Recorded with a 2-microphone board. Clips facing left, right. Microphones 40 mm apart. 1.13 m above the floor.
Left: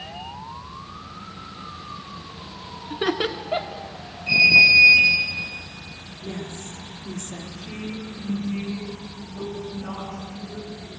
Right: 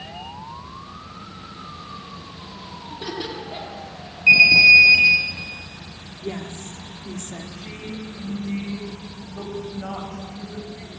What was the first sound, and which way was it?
Laughter, 55° left (ahead or behind).